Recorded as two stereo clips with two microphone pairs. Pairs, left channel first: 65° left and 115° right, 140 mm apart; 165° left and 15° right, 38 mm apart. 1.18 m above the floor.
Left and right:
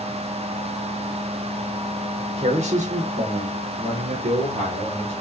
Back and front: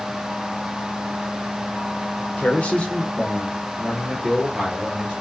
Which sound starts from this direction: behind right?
A man speaking, at 2.4 s.